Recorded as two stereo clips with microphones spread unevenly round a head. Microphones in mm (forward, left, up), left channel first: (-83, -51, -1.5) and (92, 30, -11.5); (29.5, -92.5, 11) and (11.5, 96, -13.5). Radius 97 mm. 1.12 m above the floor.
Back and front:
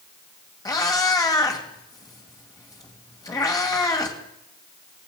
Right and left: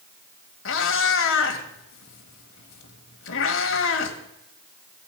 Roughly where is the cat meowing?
Right.